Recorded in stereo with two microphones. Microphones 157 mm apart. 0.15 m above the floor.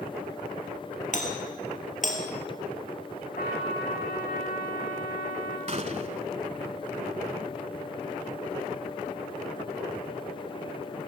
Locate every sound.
1.1 s a doorbell: 55° left (ahead or behind), 3.5 m
3.4 s a trumpet: 75° left (ahead or behind), 8.5 m
5.7 s a gunshot: 45° right (ahead or behind), 0.8 m